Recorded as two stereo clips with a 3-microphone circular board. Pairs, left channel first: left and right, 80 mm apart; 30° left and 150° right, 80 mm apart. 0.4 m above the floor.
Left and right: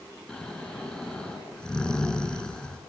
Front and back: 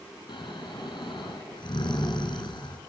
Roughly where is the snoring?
Ahead.